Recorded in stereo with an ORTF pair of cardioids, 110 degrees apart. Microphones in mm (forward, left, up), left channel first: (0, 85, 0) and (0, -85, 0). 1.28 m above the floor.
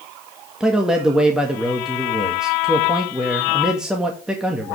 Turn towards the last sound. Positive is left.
turn(degrees=-5)